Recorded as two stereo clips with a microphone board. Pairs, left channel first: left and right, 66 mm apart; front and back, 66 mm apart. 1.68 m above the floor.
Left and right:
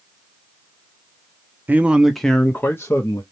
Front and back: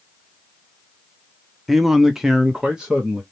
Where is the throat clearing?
No throat clearing in this recording.